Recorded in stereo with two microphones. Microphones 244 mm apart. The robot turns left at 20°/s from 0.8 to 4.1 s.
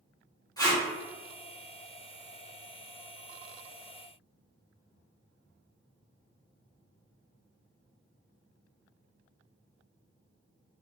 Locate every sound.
0.6 s tape being pulled: 15° left (ahead or behind), 1.4 m